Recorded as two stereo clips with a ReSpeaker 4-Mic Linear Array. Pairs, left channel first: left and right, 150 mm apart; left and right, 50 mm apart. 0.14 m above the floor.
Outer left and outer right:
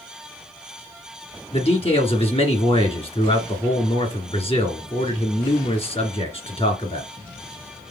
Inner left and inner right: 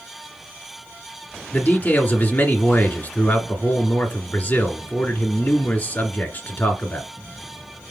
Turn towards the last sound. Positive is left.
turn(degrees=40)  # may be behind; listen again after turning